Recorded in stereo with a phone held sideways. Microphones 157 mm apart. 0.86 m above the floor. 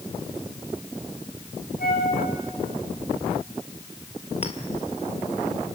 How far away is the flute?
About 7.5 m.